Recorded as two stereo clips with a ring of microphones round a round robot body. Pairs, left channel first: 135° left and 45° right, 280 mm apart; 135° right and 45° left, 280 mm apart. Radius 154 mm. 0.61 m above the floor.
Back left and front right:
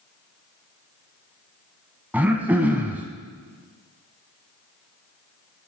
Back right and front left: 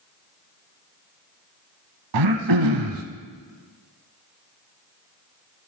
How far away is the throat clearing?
About 0.8 m.